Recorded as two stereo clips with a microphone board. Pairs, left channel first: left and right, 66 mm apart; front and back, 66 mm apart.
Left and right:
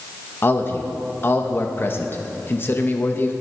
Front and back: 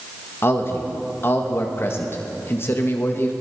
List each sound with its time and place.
0.4 s a man speaking: 45° left, 1.2 m